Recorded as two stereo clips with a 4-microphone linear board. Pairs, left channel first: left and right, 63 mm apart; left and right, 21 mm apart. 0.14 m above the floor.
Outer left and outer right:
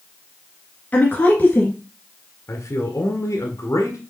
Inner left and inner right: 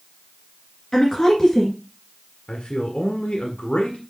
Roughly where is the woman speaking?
Left.